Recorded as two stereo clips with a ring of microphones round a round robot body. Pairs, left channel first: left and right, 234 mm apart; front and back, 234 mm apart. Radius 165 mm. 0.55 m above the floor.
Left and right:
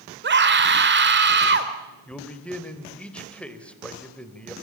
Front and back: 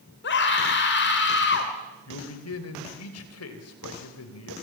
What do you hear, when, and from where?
0.2 s a scream: 50° right, 2.5 m
2.1 s a man speaking: 5° left, 2.5 m